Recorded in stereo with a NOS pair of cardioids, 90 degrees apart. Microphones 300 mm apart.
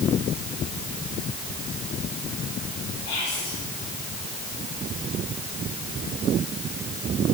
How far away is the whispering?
About 4.5 m.